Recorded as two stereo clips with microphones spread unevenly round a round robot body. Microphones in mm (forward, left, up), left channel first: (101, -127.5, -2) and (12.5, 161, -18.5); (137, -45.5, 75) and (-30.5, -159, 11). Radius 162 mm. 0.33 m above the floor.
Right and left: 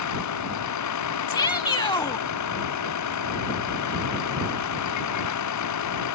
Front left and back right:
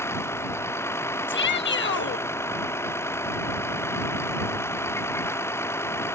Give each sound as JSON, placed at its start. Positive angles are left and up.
{"t": 0.0, "sound": "a vehicle", "azimuth_deg": -45}
{"t": 1.3, "sound": "a shout", "azimuth_deg": 0}